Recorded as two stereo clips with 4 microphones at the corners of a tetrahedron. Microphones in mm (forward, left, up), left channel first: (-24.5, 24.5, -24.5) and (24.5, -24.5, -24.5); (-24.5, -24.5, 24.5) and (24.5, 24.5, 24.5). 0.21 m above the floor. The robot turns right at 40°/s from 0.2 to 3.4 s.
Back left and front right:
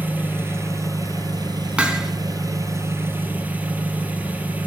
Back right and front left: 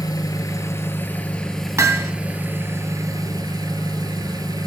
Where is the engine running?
110° right, 1.1 m; by 4.7 s 20° left, 1.1 m.